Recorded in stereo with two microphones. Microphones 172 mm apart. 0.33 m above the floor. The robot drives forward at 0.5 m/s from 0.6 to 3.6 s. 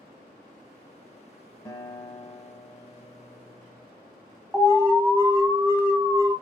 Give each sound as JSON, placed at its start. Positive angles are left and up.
{"t": 1.6, "sound": "a guitar", "side_deg": 20, "distance_m": 0.5}
{"t": 4.5, "sound": "an alarm", "side_deg": -15, "distance_m": 1.1}